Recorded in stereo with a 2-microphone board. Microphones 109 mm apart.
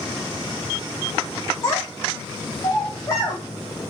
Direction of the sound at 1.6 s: 30° left (ahead or behind).